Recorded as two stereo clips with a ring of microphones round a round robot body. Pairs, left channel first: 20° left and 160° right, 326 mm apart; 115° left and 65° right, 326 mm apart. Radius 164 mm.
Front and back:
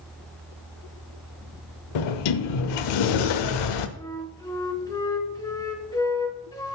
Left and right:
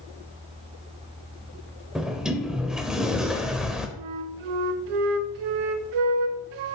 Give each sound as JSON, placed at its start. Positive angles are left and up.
{"t": 1.9, "sound": "a sliding door", "azimuth_deg": 20, "distance_m": 0.6}
{"t": 4.0, "sound": "a flute", "azimuth_deg": -55, "distance_m": 0.8}